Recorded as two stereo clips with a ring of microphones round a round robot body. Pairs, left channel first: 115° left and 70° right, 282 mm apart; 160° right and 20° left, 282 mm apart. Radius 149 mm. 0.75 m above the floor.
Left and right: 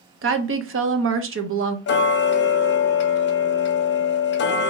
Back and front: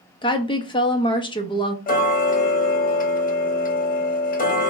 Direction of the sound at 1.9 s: 150° left.